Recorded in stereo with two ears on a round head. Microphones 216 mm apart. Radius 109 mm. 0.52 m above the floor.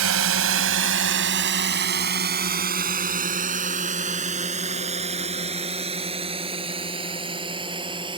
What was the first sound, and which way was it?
A drone, 70° right (ahead or behind).